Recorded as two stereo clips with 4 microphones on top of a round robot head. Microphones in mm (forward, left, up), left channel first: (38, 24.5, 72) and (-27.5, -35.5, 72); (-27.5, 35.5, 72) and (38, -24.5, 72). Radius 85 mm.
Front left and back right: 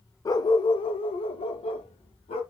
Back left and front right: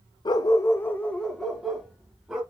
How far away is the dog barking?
About 0.6 m.